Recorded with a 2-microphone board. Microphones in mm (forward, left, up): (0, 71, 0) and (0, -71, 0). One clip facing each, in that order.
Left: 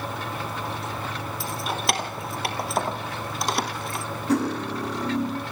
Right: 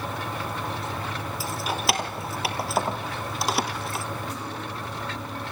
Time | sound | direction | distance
1.4 | keys jangling | centre (ahead or behind) | 1.9 m
4.3 | cutlery clinking | 75° left (ahead or behind) | 3.5 m